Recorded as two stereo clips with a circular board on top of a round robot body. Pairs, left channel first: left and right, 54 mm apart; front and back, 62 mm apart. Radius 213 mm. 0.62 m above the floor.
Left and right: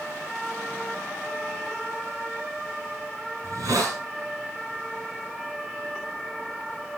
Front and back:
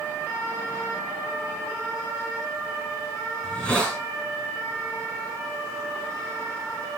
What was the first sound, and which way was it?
A hiss, 70° right.